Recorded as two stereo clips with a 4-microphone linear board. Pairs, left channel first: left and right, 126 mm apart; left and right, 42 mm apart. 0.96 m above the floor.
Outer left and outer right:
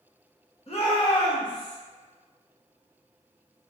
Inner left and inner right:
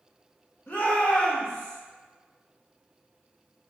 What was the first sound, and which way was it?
A shout, 50° left (ahead or behind).